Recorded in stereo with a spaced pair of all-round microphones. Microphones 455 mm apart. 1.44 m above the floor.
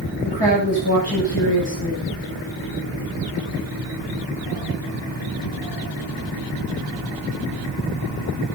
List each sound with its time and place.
0.2 s a woman speaking: 55° left (ahead or behind), 8 m